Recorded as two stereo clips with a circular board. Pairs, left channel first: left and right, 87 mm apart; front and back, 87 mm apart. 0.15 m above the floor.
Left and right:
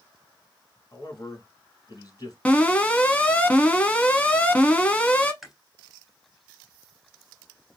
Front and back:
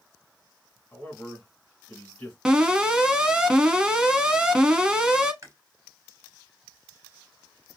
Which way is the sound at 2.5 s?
120° left.